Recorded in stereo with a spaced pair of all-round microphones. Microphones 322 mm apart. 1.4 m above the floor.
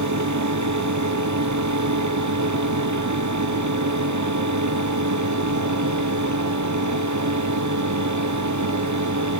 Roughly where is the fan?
Right.